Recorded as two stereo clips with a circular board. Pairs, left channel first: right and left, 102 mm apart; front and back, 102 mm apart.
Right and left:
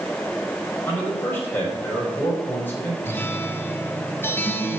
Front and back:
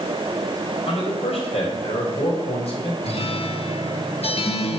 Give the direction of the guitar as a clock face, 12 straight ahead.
1 o'clock.